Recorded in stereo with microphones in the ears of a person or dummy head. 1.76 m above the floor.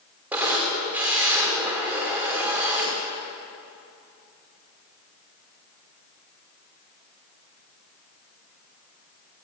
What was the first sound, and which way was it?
A camera shutter, 5° right (ahead or behind).